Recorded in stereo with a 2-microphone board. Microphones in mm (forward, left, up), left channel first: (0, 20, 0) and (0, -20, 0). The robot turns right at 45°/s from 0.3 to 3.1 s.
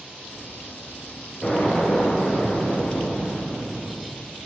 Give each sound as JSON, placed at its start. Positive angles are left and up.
{"t": 1.4, "sound": "an explosion", "azimuth_deg": 25, "distance_m": 3.5}